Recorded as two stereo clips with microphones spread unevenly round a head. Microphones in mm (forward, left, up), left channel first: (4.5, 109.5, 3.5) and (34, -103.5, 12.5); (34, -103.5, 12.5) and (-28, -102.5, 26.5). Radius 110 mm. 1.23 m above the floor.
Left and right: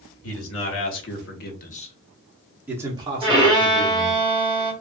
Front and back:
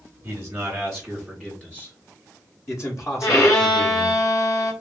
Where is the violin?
10° right, 2 m.